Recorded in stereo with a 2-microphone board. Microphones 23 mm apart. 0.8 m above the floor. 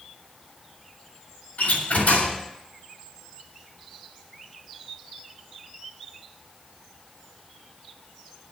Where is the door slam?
85° left, 6.5 m.